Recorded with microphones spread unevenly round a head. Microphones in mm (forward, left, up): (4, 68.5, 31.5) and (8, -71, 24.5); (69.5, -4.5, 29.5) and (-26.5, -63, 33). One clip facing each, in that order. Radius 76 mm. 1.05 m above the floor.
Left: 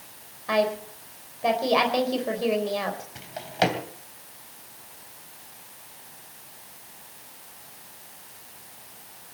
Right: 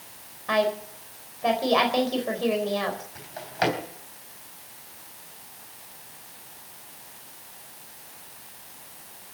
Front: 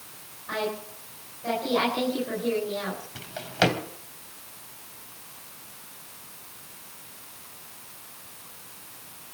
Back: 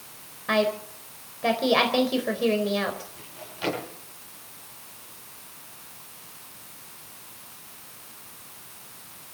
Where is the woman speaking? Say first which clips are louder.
Even, back 6 dB; 175° left, 4 m.